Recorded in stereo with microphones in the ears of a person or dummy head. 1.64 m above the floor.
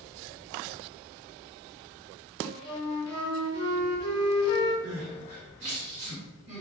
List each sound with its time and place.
2.4 s a flute: 25° left (ahead or behind), 0.7 m
4.8 s crying: 10° right (ahead or behind), 1.7 m